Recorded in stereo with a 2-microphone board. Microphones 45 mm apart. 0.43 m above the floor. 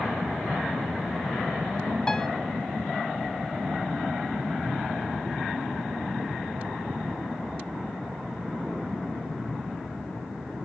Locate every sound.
2.1 s a piano: 20° left (ahead or behind), 0.6 m